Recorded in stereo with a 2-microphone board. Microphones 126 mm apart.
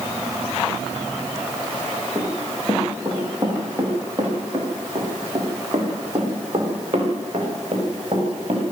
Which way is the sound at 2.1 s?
15° right (ahead or behind).